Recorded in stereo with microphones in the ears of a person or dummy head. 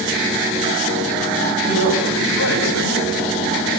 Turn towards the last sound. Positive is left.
turn(degrees=75)  # may be behind; listen again after turning